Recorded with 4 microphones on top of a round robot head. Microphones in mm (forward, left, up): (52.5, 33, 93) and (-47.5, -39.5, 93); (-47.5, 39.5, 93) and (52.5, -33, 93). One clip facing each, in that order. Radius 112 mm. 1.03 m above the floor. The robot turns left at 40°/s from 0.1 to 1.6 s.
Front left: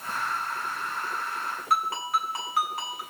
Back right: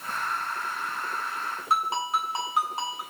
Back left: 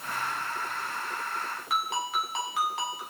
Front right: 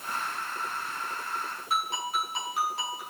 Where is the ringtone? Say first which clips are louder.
Back right 1 dB, even; 150° left, 6.5 m.